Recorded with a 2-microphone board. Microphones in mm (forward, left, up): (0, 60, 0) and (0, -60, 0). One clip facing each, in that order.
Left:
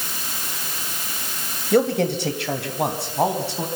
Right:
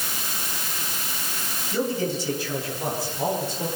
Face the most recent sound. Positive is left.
turn(degrees=75)  # may be behind; listen again after turning